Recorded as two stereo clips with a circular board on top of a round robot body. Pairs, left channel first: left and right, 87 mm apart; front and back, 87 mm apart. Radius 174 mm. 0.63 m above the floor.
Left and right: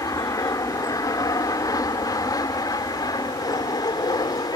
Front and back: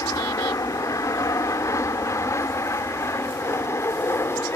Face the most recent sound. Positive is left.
turn(degrees=60)